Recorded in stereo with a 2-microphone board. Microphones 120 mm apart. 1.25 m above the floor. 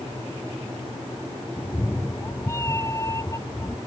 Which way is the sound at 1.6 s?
15° left (ahead or behind).